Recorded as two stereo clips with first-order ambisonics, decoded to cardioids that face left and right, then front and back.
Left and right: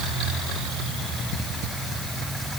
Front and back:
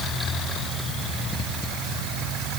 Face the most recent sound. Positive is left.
No sound to turn to.